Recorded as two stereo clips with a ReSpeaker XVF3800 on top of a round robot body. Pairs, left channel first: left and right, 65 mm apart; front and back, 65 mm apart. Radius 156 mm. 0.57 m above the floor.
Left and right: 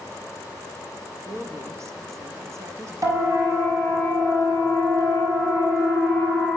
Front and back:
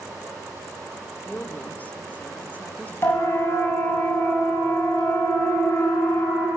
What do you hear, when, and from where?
1.2 s a woman speaking: 60° right, 1.7 m
3.0 s a siren: 50° right, 7 m; by 6.5 s 45° right, 9.5 m